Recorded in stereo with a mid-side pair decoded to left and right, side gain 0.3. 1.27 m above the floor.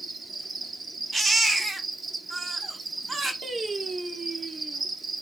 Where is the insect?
55° right, 0.8 m.